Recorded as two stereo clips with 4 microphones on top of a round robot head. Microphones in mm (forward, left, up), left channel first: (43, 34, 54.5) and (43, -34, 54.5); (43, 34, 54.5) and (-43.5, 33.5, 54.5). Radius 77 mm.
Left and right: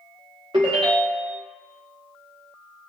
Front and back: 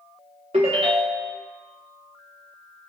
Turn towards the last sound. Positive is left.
turn(degrees=-135)